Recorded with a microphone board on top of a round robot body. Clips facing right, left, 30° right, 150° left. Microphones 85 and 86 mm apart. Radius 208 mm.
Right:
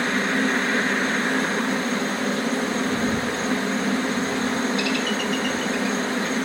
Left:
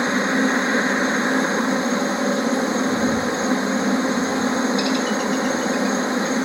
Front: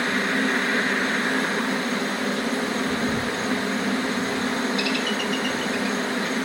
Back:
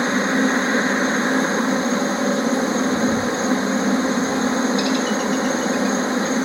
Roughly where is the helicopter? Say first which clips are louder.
Left 3 dB, back 5 dB; behind left.